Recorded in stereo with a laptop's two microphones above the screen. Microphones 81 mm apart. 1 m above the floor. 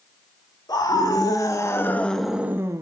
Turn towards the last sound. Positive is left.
turn(degrees=-45)  # may be behind; listen again after turning